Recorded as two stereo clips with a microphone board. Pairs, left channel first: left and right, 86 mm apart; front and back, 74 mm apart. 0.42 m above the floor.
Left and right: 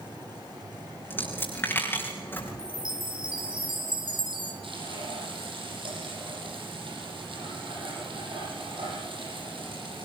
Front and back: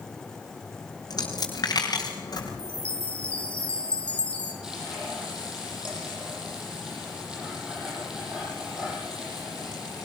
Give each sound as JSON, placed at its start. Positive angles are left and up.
{"t": 1.1, "sound": "a dropped coin", "azimuth_deg": 25, "distance_m": 4.0}
{"t": 2.6, "sound": "a chime", "azimuth_deg": -75, "distance_m": 4.0}
{"t": 4.6, "sound": "frying", "azimuth_deg": -100, "distance_m": 9.5}